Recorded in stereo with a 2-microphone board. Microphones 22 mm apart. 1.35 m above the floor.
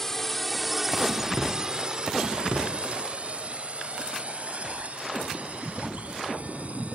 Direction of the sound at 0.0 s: 15° left (ahead or behind).